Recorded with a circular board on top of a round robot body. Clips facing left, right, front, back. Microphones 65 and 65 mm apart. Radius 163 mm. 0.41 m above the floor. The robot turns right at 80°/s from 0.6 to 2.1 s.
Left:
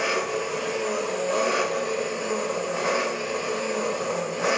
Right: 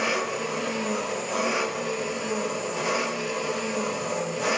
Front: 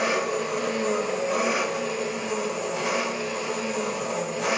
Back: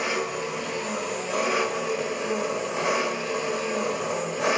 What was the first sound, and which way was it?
An engine running, 5° left.